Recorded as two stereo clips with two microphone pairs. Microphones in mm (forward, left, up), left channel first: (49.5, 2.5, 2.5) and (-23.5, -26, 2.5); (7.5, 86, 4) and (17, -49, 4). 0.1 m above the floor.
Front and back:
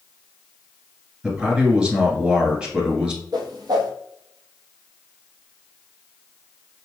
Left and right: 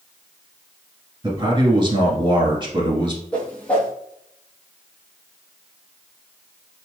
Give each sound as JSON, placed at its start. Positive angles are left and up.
{"t": 1.2, "sound": "a man speaking", "azimuth_deg": -85, "distance_m": 1.5}
{"t": 3.3, "sound": "a whoosh", "azimuth_deg": 175, "distance_m": 1.3}